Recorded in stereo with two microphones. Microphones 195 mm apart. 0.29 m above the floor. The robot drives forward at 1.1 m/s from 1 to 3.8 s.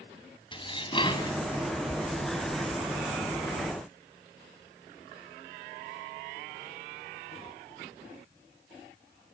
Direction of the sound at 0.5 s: 25° left (ahead or behind).